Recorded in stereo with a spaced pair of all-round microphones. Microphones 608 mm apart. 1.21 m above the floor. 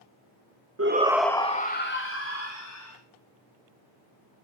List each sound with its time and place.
0.8 s a shout: 25° right (ahead or behind), 0.7 m; by 3.0 s 25° left (ahead or behind), 3 m